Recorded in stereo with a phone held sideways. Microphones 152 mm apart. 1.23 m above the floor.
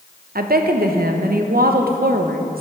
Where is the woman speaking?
80° right, 0.8 m.